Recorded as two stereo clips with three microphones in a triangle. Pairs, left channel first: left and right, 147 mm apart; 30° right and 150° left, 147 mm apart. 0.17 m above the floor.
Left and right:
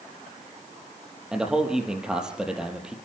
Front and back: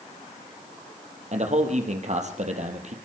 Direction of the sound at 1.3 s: 175° right.